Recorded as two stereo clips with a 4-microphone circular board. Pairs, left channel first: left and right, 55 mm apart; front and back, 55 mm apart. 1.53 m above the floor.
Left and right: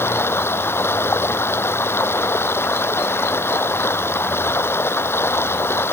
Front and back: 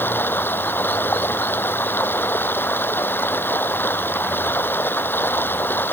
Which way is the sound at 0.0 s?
50° left.